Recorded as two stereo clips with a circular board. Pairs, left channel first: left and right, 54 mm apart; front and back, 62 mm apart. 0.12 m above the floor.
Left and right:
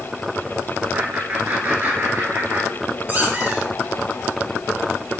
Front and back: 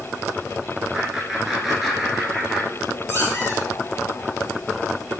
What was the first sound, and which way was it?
Laughter, 105° right.